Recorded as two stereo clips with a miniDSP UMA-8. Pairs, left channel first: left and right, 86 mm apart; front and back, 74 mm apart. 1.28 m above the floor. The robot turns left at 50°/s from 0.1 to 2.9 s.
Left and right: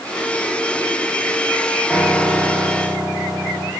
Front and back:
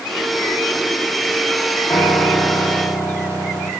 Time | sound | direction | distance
1.9 | a piano | straight ahead | 0.7 m